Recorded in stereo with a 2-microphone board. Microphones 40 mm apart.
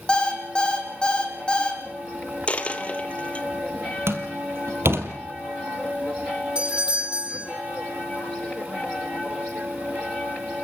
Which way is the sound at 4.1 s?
65° right (ahead or behind).